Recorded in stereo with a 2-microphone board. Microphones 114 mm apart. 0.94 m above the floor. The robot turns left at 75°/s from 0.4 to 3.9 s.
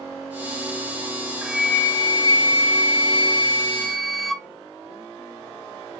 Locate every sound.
1.4 s a flute: 170° right, 0.8 m; by 4.5 s straight ahead, 0.8 m